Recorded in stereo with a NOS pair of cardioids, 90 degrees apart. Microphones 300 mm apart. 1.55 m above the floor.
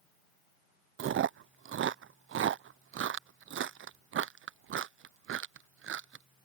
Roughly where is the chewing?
Ahead right.